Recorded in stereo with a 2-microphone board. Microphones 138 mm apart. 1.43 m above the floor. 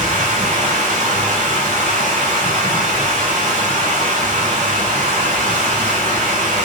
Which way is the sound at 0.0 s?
55° right (ahead or behind).